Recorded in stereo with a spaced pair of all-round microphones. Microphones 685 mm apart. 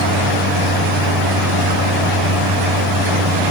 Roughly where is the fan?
Right.